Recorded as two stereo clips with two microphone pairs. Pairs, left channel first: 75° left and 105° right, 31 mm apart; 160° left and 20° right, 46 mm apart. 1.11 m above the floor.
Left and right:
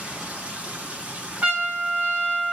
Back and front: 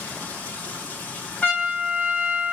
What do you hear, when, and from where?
0.0 s running water: 140° right, 5 m
1.4 s a trumpet: 145° right, 5 m